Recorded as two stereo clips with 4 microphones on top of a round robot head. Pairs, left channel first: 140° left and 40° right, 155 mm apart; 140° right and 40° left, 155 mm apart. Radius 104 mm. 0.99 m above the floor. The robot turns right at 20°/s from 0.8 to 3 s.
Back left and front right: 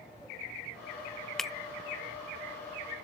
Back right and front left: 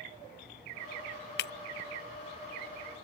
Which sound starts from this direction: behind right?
Breaking glass, at 1.4 s.